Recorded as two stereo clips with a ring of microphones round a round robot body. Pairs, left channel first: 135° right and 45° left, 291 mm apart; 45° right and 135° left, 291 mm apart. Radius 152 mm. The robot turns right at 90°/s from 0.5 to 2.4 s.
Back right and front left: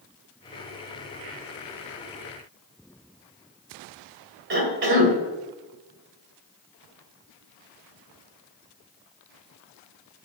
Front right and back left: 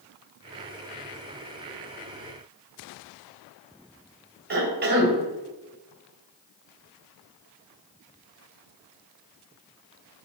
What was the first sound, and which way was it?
A cough, 85° left.